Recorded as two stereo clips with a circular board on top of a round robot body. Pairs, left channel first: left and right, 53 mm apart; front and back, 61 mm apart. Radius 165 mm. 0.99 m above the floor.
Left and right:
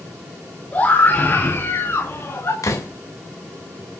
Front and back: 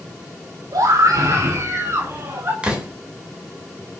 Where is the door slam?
105° left, 4.5 m.